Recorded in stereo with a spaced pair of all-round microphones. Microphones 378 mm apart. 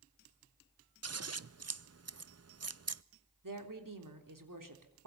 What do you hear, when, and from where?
1.0 s scissors: 45° right (ahead or behind), 0.6 m
3.4 s a woman speaking: 60° right (ahead or behind), 3.5 m